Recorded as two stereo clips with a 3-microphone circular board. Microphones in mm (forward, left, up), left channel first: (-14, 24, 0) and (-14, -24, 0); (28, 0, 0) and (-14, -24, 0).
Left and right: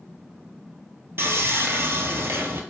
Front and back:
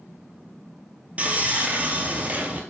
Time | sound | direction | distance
1.2 | sawing | 95° right | 0.6 m